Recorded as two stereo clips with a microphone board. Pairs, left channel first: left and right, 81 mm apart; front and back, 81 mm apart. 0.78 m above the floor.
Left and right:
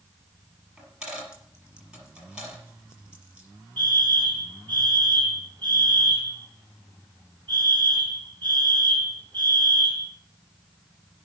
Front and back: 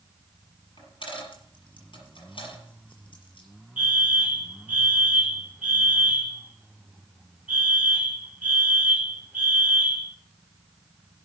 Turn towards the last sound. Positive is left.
turn(degrees=-105)